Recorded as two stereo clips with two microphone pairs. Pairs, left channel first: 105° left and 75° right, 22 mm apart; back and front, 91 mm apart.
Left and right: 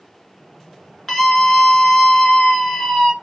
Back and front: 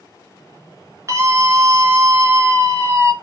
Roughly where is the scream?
Ahead left.